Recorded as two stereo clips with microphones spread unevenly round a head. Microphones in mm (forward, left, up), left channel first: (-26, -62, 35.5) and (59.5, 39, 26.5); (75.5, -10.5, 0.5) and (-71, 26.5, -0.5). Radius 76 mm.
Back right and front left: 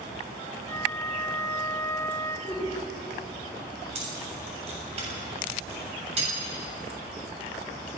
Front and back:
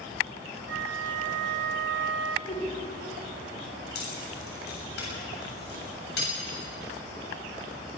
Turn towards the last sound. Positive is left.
turn(degrees=5)